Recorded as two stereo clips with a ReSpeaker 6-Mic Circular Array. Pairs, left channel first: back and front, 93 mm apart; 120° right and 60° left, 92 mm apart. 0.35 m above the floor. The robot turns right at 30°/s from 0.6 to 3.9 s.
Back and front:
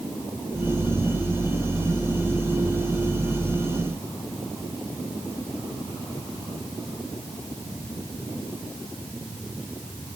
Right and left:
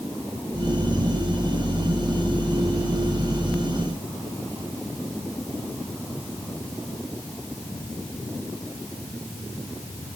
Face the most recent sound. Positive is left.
No sound to turn to.